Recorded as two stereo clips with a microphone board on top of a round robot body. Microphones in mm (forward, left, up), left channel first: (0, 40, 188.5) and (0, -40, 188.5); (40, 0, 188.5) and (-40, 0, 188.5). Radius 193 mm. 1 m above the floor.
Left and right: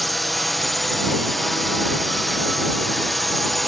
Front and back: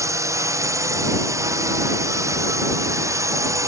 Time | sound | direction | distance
0.0 | a drone | straight behind | ?